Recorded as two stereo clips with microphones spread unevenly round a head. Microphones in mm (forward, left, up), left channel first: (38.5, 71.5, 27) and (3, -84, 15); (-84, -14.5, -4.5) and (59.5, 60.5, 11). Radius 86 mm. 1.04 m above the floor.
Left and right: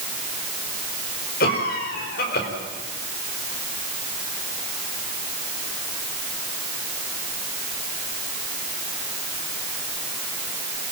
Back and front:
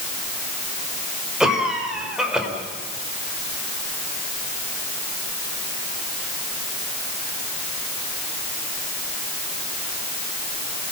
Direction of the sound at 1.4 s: 115° left.